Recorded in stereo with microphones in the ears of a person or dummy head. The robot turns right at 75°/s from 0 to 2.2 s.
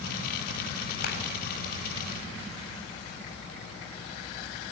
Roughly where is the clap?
Left.